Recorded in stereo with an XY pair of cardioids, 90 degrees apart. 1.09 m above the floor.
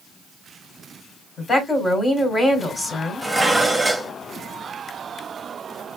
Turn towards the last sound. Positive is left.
turn(degrees=-10)